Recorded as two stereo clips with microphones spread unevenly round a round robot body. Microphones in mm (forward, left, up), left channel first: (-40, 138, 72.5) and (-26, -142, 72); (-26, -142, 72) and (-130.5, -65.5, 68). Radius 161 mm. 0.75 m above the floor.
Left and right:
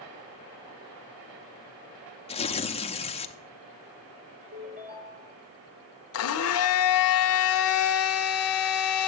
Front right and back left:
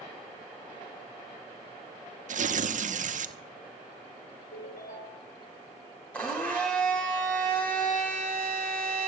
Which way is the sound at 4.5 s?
25° right.